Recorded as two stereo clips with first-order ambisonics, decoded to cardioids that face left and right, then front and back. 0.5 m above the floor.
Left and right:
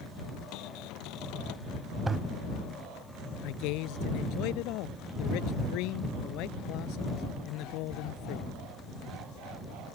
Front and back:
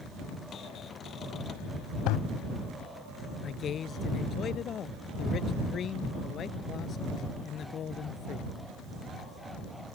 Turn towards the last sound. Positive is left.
turn(degrees=60)